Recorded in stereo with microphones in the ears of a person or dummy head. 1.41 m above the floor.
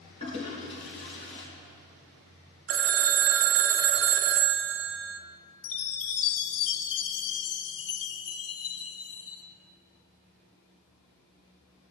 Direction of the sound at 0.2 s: 30° left (ahead or behind).